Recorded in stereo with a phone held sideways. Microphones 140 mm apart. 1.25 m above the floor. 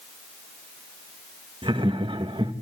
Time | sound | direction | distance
1.6 | laughter | 35° right (ahead or behind) | 1.5 m